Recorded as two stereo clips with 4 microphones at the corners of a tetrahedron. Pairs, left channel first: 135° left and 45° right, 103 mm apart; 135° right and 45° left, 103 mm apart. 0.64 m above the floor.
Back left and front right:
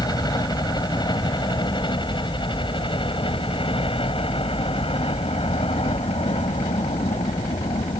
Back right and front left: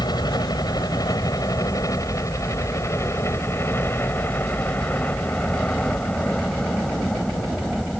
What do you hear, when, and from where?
0.0 s a helicopter: straight behind; by 8.0 s 140° left